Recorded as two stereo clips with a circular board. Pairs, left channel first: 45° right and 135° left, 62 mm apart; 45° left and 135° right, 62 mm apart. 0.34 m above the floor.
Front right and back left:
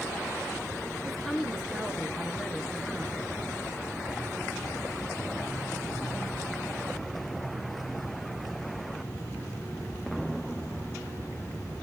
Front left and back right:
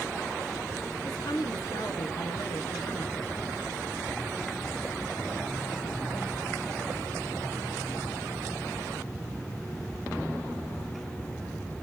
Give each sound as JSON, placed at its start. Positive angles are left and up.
{"t": 1.0, "sound": "a woman speaking", "azimuth_deg": 45, "distance_m": 4.5}